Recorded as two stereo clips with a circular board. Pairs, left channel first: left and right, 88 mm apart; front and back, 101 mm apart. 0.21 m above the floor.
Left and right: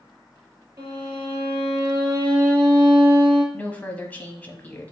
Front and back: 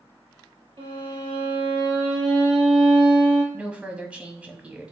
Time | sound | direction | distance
0.8 | a violin | 150° right | 3 m
3.5 | a woman speaking | 125° left | 1.0 m